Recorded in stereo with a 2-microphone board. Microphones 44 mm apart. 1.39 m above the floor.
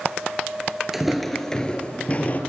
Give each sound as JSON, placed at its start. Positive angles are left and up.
{"t": 0.9, "sound": "footsteps", "side_deg": -5, "distance_m": 1.4}